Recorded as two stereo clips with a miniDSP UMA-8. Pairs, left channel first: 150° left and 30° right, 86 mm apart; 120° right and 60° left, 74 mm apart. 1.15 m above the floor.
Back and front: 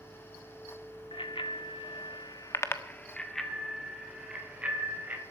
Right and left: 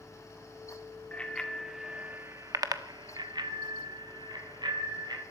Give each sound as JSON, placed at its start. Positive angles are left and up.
{"t": 1.1, "sound": "a bicycle bell", "azimuth_deg": 165, "distance_m": 2.0}